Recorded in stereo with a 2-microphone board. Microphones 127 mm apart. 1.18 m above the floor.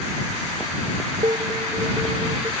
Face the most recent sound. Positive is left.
turn(degrees=-35)  # may be behind; listen again after turning